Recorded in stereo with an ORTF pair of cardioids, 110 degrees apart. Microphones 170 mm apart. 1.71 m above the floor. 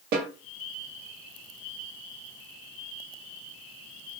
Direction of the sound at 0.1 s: 70° right.